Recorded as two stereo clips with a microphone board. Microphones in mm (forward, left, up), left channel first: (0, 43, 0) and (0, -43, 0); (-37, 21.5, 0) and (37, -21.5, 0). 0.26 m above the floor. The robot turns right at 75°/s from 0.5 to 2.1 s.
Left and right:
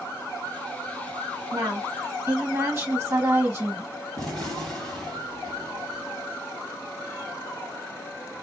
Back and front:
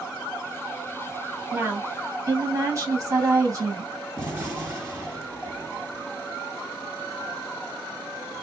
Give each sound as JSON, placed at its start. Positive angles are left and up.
{"t": 1.5, "sound": "a woman speaking", "azimuth_deg": -95, "distance_m": 1.6}
{"t": 4.2, "sound": "a gunshot", "azimuth_deg": 10, "distance_m": 2.0}